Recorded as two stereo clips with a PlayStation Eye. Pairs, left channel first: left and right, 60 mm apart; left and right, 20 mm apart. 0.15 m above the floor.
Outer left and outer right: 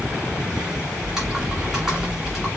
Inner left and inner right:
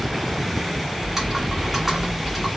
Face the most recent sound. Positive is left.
turn(degrees=-10)  # may be behind; listen again after turning